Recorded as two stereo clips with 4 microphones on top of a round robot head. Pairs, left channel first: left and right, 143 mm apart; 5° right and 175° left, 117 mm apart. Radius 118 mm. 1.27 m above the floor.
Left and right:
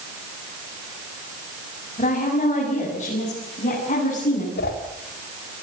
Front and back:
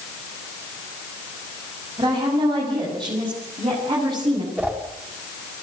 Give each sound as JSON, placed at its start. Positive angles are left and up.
{"t": 2.0, "sound": "a woman speaking", "azimuth_deg": 125, "distance_m": 7.5}
{"t": 4.6, "sound": "a whoosh", "azimuth_deg": 95, "distance_m": 5.0}